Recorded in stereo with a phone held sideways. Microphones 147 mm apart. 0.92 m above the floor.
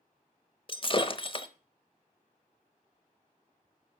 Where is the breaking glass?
35° left (ahead or behind), 0.9 m.